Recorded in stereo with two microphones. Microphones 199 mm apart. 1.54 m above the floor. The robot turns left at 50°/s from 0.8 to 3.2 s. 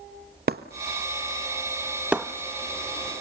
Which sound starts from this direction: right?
Breaking glass, at 0.5 s.